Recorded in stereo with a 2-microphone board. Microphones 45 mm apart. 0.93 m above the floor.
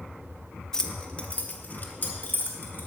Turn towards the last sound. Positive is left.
turn(degrees=50)  # may be behind; listen again after turning